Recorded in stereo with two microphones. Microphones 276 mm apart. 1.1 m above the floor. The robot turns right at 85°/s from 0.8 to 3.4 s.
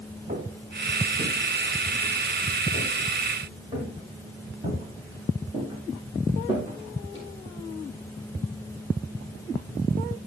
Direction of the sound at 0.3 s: 30° right (ahead or behind).